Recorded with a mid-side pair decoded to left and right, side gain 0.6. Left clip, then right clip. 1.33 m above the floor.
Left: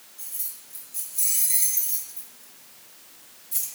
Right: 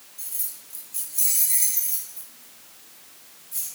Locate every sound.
0.2 s keys jangling: 35° right, 1.8 m; by 3.7 s 45° left, 1.4 m